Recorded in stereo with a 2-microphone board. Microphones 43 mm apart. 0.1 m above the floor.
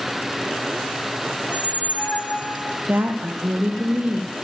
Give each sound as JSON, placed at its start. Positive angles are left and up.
{"t": 1.4, "sound": "a squeak", "side_deg": 50, "distance_m": 2.5}
{"t": 2.9, "sound": "a woman speaking", "side_deg": -40, "distance_m": 3.0}